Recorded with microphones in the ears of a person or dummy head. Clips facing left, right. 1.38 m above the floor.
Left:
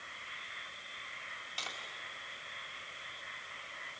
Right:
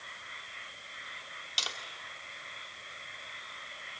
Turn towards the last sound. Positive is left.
turn(degrees=-55)  # may be behind; listen again after turning